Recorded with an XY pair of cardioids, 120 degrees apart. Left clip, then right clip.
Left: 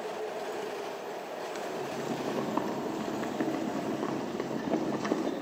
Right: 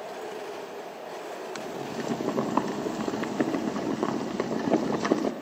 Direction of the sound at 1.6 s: 40° right.